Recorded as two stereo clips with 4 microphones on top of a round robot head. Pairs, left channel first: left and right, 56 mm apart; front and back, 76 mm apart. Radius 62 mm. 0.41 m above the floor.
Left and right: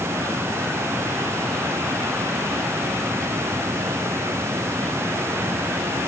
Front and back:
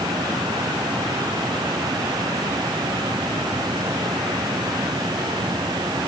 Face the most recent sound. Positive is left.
No sound to turn to.